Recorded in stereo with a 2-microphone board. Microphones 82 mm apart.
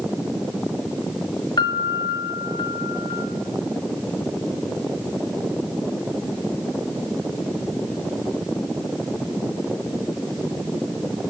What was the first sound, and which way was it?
A piano, 60° left (ahead or behind).